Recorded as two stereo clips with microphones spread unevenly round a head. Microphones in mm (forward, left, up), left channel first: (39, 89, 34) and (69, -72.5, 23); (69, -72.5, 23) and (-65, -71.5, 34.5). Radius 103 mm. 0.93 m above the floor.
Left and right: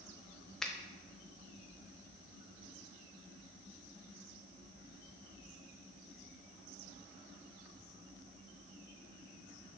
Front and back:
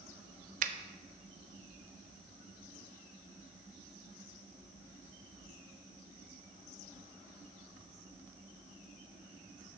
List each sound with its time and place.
0.6 s a finger snap: 170° right, 0.6 m